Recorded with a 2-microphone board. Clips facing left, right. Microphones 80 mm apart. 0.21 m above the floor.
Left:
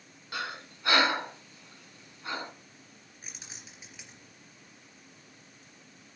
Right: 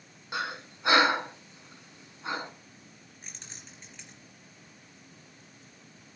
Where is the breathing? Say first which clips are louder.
Right 3 dB; 20° right (ahead or behind), 2.5 m.